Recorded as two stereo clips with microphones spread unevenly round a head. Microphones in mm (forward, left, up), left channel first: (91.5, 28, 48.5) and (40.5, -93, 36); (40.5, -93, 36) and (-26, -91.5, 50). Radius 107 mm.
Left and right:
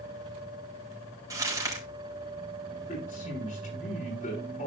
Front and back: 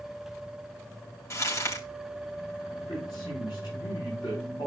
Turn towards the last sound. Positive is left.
turn(degrees=45)